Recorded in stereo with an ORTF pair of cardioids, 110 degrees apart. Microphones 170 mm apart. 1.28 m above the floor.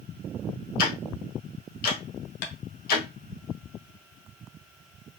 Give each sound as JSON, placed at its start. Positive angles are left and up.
{"t": 0.8, "sound": "ticking", "azimuth_deg": 55, "distance_m": 1.2}
{"t": 2.4, "sound": "tapping", "azimuth_deg": 60, "distance_m": 0.9}